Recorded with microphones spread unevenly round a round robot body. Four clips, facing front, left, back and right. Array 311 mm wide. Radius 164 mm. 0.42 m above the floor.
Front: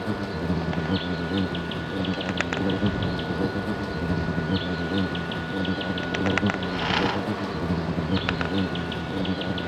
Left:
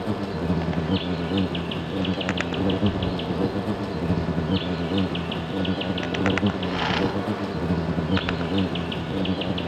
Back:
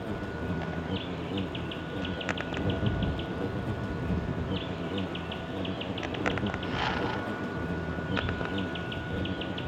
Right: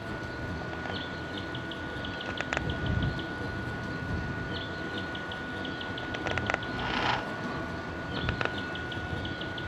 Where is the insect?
60° left.